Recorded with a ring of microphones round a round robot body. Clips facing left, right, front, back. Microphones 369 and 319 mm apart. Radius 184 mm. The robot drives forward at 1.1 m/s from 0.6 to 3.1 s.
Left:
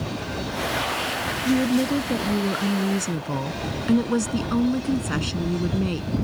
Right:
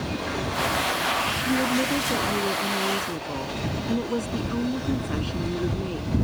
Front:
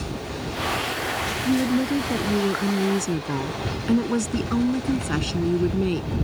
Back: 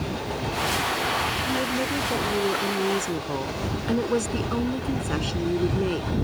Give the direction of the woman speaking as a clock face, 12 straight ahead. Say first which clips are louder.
Left 4 dB, front 8 dB; 11 o'clock.